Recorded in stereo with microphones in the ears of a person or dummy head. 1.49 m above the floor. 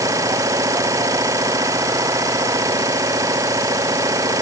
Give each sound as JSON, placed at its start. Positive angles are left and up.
{"t": 0.0, "sound": "an engine running", "side_deg": -20}